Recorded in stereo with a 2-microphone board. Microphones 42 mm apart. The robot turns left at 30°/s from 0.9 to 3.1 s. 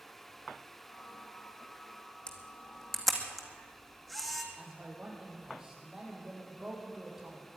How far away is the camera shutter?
About 2 m.